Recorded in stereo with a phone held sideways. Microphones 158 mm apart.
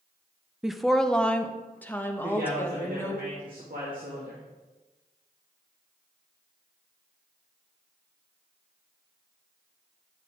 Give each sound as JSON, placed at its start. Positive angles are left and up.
{"t": 0.6, "sound": "a woman speaking", "side_deg": -5, "distance_m": 0.5}
{"t": 2.2, "sound": "a man speaking", "side_deg": -65, "distance_m": 2.0}